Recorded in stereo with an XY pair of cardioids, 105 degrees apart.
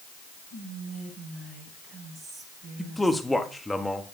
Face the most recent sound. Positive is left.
turn(degrees=10)